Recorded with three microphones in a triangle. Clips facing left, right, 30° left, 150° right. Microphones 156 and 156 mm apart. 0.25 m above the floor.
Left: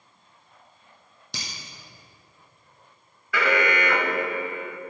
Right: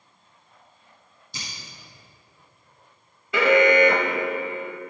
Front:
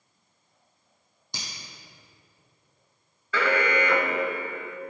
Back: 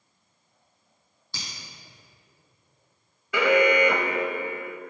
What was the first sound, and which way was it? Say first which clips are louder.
Breaking glass: left 2 dB, even; 105° left.